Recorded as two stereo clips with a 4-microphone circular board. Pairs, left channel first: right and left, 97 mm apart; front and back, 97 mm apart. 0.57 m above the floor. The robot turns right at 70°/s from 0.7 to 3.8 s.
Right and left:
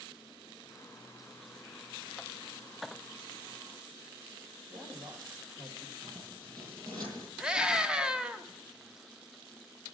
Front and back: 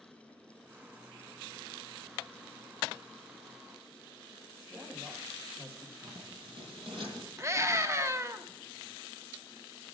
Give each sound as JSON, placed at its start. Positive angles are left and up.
{"t": 4.7, "sound": "a man speaking", "azimuth_deg": 110, "distance_m": 3.0}
{"t": 6.0, "sound": "scissors", "azimuth_deg": 140, "distance_m": 6.5}
{"t": 7.4, "sound": "a scream", "azimuth_deg": 165, "distance_m": 0.7}